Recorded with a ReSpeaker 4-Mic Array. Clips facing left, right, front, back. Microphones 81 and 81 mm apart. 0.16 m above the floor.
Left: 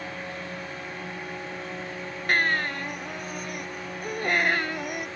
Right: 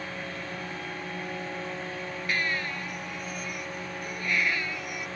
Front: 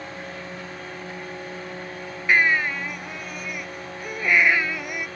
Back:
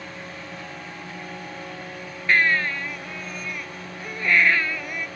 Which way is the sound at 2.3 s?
75° left.